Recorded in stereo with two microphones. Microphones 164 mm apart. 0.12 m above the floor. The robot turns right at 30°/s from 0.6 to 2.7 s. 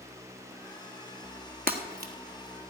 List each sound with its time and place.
1.7 s breaking glass: 65° right (ahead or behind), 1.6 m; by 2.1 s 70° right (ahead or behind), 1.6 m